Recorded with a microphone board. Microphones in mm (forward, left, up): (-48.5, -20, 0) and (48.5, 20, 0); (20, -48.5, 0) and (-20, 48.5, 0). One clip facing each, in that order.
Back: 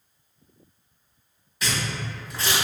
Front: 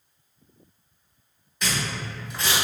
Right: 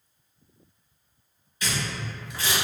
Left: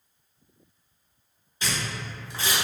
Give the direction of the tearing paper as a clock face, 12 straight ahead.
8 o'clock.